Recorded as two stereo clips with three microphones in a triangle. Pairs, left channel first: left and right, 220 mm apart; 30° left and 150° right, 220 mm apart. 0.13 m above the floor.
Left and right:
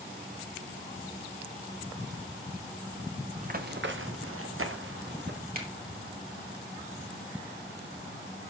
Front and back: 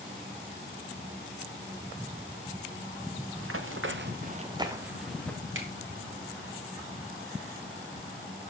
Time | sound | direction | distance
3.4 | running footsteps | 145° right | 1.5 m
5.5 | a finger snap | 135° right | 2.5 m